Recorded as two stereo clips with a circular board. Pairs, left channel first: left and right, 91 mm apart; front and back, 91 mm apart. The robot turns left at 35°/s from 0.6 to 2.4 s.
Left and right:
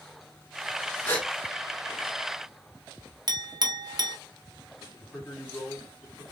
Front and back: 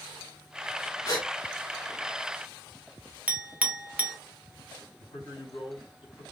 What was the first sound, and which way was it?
A gasp, 30° left.